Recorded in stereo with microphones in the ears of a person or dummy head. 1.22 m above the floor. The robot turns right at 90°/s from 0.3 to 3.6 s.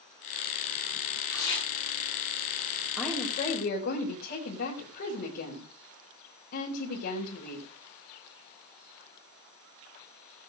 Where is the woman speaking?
5° right, 4 m; by 7.7 s 55° left, 4 m.